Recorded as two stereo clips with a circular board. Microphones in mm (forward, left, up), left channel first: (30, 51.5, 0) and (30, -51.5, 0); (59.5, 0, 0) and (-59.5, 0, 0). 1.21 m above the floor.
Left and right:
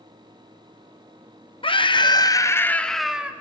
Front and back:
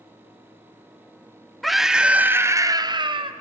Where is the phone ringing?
I don't hear a phone ringing.